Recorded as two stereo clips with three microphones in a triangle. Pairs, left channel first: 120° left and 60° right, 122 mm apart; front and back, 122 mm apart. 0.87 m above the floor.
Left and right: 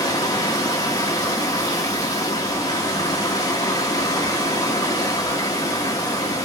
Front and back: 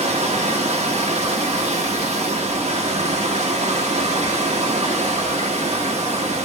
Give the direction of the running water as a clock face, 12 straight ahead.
6 o'clock.